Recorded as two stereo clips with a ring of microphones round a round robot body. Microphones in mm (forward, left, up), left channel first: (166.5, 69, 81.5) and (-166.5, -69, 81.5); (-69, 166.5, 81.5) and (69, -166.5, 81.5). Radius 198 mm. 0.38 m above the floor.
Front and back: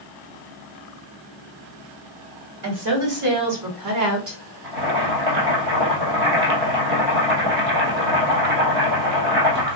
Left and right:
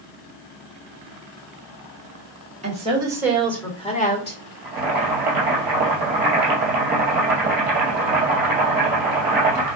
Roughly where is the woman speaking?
Behind right.